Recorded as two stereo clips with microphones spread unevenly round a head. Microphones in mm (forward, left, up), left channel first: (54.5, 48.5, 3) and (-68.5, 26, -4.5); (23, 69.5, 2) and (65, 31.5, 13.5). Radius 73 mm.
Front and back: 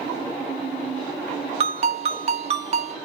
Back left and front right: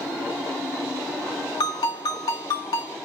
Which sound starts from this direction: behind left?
A ringtone, at 1.6 s.